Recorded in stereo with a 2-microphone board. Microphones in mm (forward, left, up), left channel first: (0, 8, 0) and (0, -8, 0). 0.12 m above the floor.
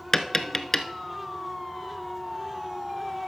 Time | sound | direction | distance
0.1 | tapping | 30° left (ahead or behind) | 0.6 m